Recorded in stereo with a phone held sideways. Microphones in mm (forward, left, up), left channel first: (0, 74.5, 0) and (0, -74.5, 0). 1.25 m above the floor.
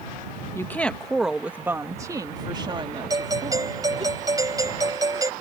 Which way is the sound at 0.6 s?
15° left (ahead or behind).